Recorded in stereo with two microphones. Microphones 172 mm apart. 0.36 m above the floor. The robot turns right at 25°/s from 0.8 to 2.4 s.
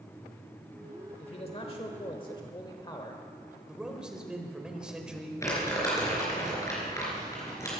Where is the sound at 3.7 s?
5° right (ahead or behind), 1.7 m.